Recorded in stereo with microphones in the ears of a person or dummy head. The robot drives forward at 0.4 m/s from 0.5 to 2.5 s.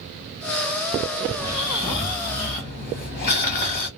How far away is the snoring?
About 1.2 m.